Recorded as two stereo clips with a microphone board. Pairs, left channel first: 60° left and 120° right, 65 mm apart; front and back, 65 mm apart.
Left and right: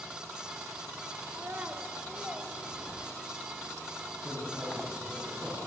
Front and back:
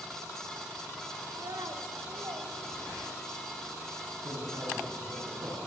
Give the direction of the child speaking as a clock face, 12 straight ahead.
6 o'clock.